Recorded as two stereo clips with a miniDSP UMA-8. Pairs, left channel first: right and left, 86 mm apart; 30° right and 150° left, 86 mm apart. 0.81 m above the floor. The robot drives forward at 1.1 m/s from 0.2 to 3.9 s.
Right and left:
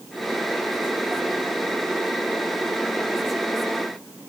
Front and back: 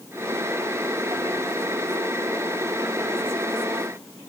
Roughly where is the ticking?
I don't hear ticking.